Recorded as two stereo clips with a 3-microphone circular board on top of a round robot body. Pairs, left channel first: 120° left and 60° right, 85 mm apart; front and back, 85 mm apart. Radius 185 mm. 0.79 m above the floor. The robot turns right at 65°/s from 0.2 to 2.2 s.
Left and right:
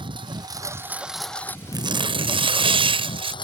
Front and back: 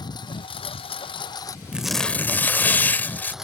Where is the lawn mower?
35° right; by 3.4 s 95° left.